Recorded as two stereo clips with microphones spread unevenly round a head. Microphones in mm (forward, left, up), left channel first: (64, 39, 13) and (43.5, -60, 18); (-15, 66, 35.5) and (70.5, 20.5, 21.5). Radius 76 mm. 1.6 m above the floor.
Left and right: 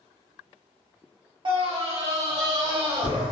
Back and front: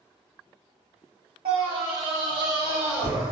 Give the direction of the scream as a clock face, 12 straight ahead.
2 o'clock.